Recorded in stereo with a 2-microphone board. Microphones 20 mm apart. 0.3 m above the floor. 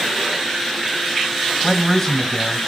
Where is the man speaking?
20° left (ahead or behind), 1.2 m.